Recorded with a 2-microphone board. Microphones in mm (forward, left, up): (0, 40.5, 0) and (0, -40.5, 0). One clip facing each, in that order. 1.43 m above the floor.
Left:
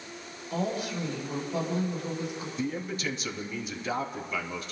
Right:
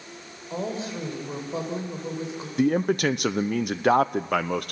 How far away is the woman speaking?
About 6 m.